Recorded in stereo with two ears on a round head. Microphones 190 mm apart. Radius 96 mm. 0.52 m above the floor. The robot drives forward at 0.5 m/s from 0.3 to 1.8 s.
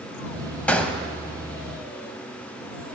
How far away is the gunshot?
About 0.6 m.